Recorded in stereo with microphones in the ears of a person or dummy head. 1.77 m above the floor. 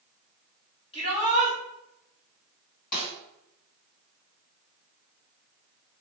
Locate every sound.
0.9 s a shout: 30° left (ahead or behind), 1.3 m
2.9 s a snare drum: 50° left (ahead or behind), 1.7 m